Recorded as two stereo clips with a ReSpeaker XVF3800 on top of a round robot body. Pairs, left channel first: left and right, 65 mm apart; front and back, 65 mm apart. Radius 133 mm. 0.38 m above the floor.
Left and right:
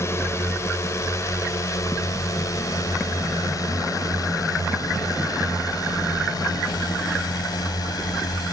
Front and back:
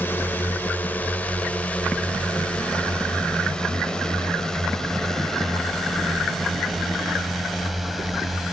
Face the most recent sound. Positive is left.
turn(degrees=95)